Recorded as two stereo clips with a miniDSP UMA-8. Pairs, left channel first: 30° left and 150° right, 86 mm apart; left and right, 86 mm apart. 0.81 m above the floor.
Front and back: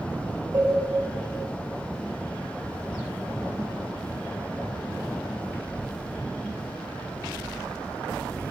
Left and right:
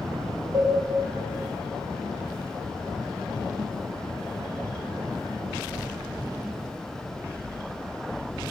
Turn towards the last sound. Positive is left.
turn(degrees=-125)